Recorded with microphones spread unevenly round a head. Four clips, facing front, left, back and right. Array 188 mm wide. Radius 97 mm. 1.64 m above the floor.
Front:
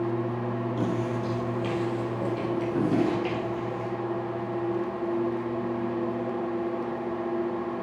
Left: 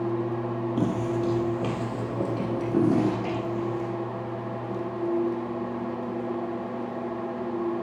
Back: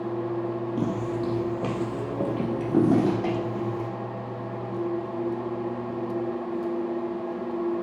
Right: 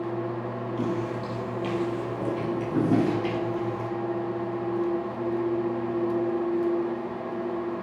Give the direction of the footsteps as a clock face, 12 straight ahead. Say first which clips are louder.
Left 3 dB, back 1 dB; 8 o'clock.